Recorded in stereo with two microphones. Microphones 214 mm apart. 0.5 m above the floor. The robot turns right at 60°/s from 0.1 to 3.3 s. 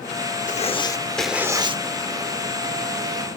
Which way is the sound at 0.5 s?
135° left.